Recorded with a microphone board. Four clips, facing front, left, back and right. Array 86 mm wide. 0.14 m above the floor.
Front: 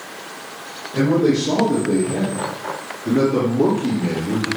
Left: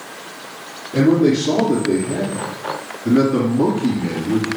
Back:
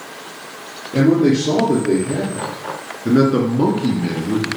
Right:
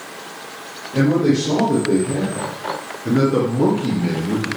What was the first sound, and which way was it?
A man speaking, 160° left.